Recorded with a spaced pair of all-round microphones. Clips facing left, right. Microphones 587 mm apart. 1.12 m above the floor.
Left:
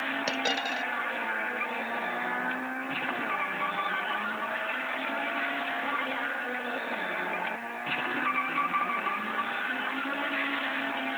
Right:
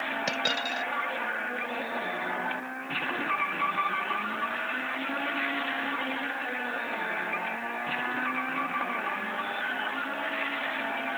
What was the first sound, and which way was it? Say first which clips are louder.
A dropped coin: left 1 dB; 35° right (ahead or behind).